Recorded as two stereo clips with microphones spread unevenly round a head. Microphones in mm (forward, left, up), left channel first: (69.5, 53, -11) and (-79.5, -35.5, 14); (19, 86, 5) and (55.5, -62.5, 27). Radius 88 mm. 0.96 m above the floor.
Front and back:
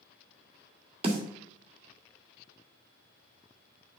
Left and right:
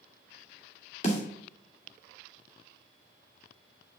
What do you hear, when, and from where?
1.0 s a snare drum: 150° left, 2.5 m